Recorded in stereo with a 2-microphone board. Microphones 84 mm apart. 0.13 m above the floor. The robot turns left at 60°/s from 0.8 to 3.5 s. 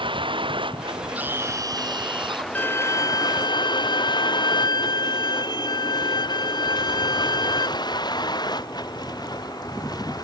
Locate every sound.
0.0 s a vehicle: 90° right; by 10.2 s 50° left (ahead or behind)
1.1 s a scream: 15° right; by 2.5 s 95° right
2.5 s a violin: 155° left; by 7.7 s 100° left